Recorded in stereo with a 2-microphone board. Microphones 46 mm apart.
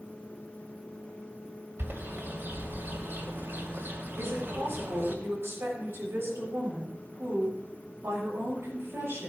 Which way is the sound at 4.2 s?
65° right (ahead or behind).